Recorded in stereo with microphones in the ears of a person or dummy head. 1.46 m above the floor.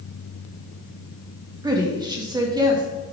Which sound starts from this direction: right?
A woman speaking, at 1.6 s.